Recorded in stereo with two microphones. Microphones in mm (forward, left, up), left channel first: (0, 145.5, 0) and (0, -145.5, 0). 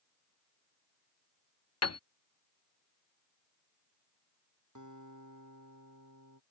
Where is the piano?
60° left (ahead or behind).